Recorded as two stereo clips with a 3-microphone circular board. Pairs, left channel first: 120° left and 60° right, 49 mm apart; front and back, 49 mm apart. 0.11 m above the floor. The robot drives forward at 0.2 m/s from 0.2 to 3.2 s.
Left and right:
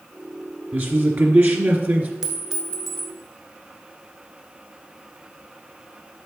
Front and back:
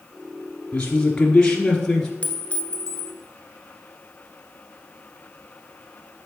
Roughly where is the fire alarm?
I don't hear a fire alarm.